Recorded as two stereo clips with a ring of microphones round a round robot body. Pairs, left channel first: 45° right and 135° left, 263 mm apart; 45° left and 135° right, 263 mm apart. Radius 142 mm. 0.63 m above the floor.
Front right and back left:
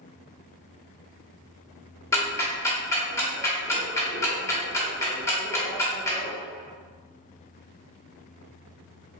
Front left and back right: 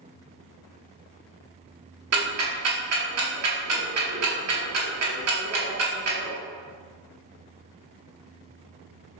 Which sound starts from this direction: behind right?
Ticking, at 2.1 s.